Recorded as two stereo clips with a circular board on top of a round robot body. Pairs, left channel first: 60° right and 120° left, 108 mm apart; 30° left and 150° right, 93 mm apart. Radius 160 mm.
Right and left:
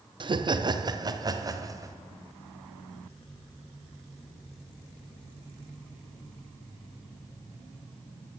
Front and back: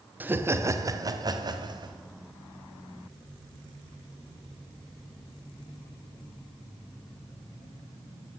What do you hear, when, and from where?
0.2 s laughter: 145° left, 1.2 m; by 1.9 s 175° left, 2 m